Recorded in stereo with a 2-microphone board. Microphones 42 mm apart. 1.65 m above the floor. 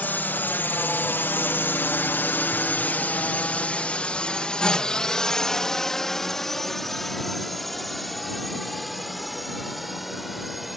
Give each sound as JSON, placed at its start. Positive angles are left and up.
{"t": 0.0, "sound": "a drone", "side_deg": 45}